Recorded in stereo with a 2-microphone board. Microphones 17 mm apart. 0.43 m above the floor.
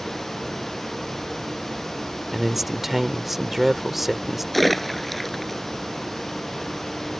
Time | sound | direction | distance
2.3 | a man speaking | 10° right (ahead or behind) | ?
4.5 | a splash | 10° left (ahead or behind) | ?